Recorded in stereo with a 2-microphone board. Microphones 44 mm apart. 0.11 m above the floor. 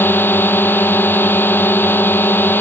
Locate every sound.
0.0 s a drone: 55° left (ahead or behind)